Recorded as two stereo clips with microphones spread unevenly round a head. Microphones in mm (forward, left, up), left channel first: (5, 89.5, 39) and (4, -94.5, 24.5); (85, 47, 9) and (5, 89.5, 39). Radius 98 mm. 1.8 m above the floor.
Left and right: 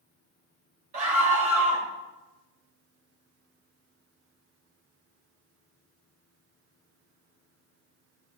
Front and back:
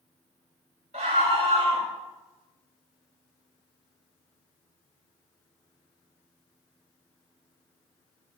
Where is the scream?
145° right, 4 m.